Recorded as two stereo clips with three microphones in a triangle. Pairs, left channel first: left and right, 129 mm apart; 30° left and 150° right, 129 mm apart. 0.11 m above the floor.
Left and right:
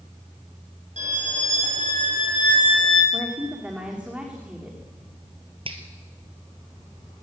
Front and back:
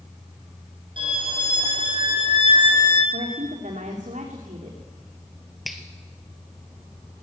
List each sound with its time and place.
1.0 s a violin: 105° right, 4 m
3.1 s a woman speaking: 170° right, 6 m
5.7 s a finger snap: 60° right, 2 m